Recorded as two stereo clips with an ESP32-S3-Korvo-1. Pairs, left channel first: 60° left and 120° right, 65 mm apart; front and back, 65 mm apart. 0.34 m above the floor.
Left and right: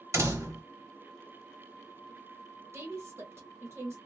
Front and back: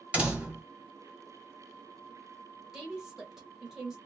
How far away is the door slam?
About 1.2 m.